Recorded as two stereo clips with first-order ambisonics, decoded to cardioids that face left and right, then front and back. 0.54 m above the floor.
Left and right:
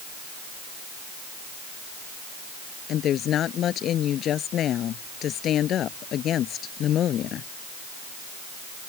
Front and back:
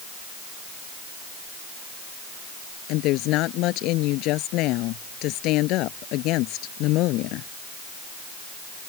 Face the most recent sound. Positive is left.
turn(degrees=35)